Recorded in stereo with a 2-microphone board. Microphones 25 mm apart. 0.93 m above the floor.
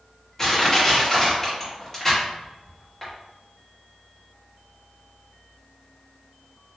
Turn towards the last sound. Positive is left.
turn(degrees=20)  # may be behind; listen again after turning